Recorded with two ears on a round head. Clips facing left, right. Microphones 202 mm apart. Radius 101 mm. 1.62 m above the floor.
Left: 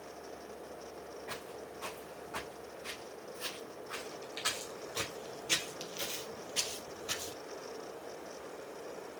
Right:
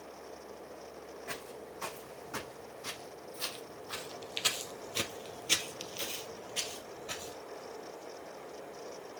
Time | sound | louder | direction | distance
1.3 | footsteps | even | 65° right (ahead or behind) | 4 m